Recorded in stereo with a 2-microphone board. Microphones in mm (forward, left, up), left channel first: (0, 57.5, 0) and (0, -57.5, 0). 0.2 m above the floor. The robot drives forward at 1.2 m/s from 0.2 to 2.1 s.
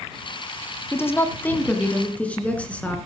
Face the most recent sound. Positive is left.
turn(degrees=10)  # may be behind; listen again after turning